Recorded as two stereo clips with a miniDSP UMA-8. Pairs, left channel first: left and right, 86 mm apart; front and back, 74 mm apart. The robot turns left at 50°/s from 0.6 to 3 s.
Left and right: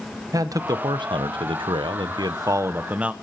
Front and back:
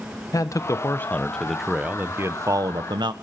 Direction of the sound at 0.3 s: 45° right.